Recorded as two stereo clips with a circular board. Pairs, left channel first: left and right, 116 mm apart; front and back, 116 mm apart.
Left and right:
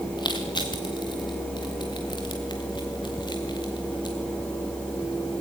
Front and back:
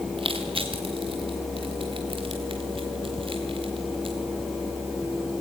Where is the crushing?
140° left, 3 m.